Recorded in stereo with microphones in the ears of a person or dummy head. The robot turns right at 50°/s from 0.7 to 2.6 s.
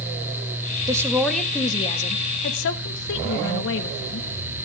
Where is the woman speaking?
20° right, 1.5 m; by 4.3 s 65° left, 1.5 m.